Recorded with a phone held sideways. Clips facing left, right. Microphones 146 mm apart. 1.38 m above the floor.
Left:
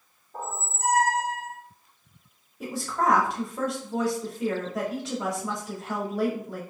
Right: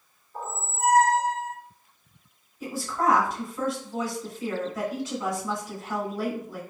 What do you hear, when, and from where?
0.3 s a squeak: 70° left (ahead or behind), 1.9 m
2.6 s a woman speaking: 75° left (ahead or behind), 2 m